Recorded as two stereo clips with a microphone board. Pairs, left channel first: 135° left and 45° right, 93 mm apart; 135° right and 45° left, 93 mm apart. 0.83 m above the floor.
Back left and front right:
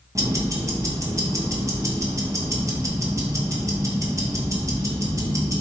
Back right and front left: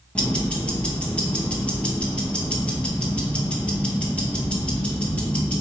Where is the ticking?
70° right, 0.9 m.